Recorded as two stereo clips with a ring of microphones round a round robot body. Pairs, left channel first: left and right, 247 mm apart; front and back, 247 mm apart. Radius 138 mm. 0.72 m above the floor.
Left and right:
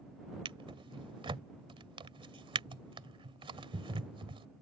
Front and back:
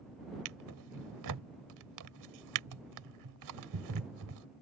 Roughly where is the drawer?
Behind.